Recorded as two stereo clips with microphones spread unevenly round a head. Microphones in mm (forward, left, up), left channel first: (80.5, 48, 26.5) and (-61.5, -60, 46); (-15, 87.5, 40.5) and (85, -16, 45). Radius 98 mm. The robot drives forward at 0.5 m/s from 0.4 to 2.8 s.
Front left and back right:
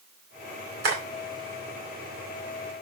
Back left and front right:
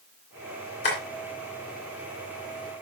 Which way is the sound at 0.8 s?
170° right.